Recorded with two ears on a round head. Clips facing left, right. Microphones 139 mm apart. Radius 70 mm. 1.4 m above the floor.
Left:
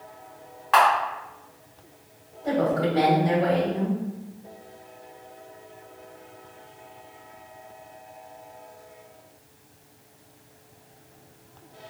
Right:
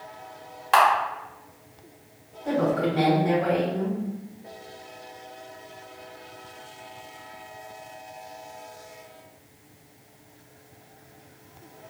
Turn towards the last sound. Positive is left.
turn(degrees=35)  # may be behind; listen again after turning